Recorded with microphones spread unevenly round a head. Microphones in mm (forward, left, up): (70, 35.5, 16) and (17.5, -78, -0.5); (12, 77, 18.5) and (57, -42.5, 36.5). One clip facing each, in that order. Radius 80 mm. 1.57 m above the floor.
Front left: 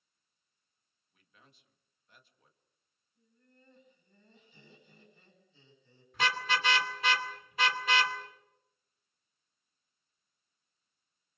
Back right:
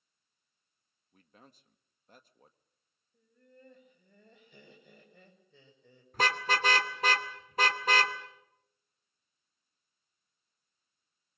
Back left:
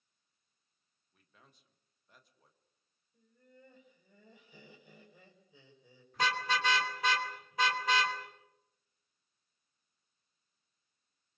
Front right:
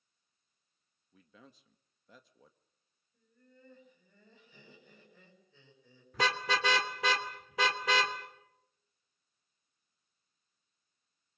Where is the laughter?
170° right, 7 m.